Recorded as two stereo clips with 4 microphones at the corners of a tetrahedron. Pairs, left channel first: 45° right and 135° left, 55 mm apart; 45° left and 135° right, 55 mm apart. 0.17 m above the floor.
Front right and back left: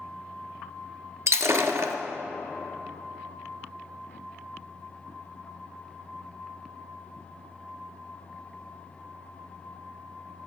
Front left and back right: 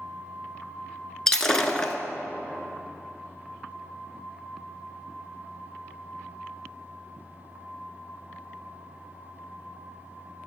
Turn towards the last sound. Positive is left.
turn(degrees=120)